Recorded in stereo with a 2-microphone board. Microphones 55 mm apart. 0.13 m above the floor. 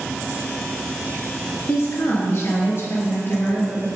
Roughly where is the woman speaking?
Left.